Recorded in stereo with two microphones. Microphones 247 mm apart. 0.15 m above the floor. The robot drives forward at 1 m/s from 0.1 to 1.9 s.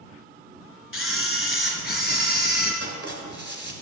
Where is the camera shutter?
55° left (ahead or behind), 0.9 m; by 2.7 s 40° left (ahead or behind), 1.1 m.